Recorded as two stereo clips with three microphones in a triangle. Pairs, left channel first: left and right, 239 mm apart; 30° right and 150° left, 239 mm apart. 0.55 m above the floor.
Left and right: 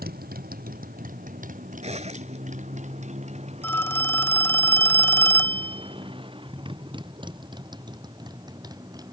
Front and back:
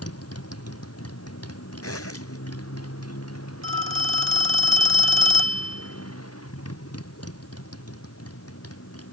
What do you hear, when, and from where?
0.0 s a motorcycle: 40° right; by 9.1 s 15° right
1.8 s a zipper: 30° right
3.6 s a phone ringing: 170° left